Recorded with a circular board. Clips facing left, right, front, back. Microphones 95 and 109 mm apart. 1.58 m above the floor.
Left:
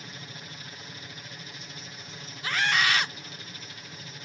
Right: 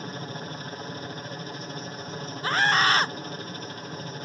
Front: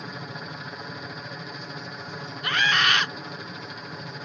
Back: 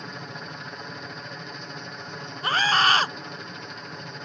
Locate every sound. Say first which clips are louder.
0.0 s a helicopter: right 9 dB, front 1 dB; 85° right
2.4 s a scream: right 4 dB, back 3 dB; 135° right